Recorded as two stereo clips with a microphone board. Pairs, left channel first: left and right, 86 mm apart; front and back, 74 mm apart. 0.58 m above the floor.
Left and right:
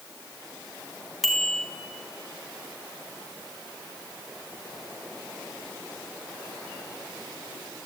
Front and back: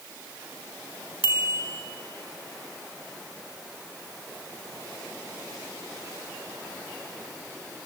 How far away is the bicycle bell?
About 3.5 m.